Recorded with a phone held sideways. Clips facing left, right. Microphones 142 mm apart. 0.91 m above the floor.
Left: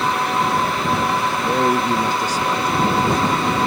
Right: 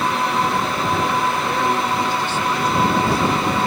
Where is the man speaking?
25° left (ahead or behind); by 3.5 s 15° left (ahead or behind).